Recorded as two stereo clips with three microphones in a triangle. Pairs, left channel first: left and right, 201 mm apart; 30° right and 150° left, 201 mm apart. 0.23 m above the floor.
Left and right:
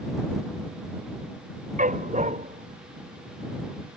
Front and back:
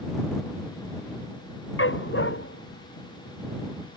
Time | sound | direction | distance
1.8 | a dog barking | 40° right | ?